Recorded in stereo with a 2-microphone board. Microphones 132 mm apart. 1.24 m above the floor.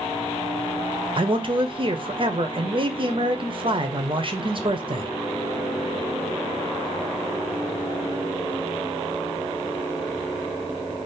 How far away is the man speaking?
About 0.7 m.